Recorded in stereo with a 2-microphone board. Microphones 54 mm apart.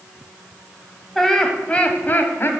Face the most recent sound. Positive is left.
turn(degrees=45)  # may be behind; listen again after turning